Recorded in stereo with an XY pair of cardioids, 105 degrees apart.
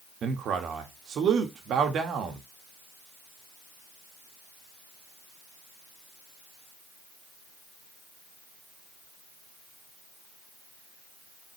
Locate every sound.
0.2 s a man speaking: 65° right, 1.7 m